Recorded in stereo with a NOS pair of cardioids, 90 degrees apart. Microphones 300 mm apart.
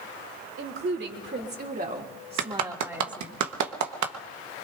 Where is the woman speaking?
45° right, 3.5 m; by 3.4 s straight ahead, 2.5 m.